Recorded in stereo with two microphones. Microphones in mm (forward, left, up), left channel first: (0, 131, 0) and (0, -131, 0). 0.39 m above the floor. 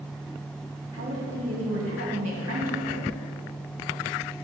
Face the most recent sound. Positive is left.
turn(degrees=-65)  # may be behind; listen again after turning